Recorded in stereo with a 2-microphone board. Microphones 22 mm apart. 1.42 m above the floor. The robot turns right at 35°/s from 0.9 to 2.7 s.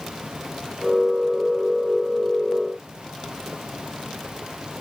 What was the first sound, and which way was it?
Only background noise.